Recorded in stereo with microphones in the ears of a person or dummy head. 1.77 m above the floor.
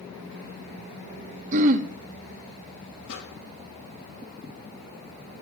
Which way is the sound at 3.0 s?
70° left (ahead or behind).